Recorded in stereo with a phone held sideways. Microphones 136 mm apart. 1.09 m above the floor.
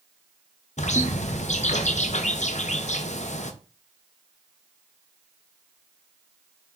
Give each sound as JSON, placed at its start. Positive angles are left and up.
{"t": 0.8, "sound": "a bird", "side_deg": 60, "distance_m": 0.5}